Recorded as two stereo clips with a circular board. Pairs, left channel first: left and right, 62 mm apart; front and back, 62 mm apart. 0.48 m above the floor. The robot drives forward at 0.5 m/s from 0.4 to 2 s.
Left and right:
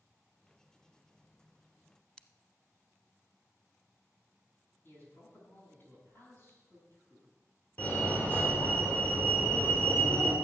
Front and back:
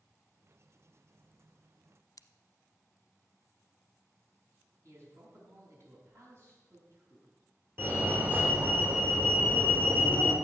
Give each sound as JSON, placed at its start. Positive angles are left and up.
{"t": 2.2, "sound": "scissors", "azimuth_deg": 15, "distance_m": 0.6}
{"t": 4.8, "sound": "a man speaking", "azimuth_deg": 140, "distance_m": 5.5}
{"t": 7.8, "sound": "a fire alarm", "azimuth_deg": 140, "distance_m": 3.0}